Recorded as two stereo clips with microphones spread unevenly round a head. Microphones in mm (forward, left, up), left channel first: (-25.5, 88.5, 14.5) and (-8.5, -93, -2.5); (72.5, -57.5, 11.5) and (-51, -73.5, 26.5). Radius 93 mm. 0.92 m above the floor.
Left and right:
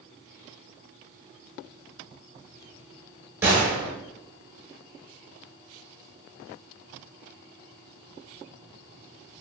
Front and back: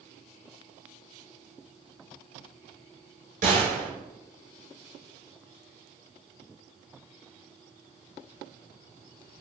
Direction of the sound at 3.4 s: 160° right.